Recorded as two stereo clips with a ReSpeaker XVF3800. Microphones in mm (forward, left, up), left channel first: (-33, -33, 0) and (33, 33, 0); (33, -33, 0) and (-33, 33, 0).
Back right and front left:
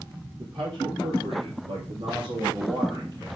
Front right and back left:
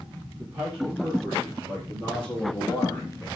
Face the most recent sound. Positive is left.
turn(degrees=10)